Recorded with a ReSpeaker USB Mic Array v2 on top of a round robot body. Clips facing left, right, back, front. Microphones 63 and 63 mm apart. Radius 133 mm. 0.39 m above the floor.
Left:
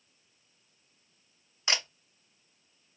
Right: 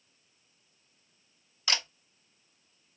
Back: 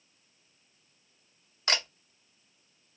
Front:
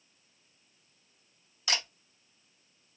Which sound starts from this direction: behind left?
A camera shutter, at 1.7 s.